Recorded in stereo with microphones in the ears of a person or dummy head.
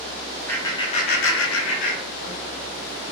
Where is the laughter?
10° left (ahead or behind), 0.8 m; by 2.4 s 55° left (ahead or behind), 1.2 m.